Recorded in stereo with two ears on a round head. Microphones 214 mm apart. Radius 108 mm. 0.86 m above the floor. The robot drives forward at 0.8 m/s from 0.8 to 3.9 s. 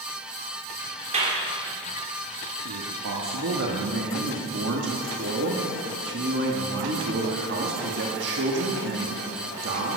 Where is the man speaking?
65° right (ahead or behind), 1.3 m; by 10.0 s 50° right (ahead or behind), 1.5 m.